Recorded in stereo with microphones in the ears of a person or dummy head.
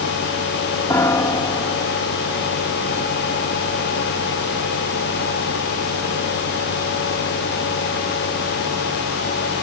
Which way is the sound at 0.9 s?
15° left (ahead or behind).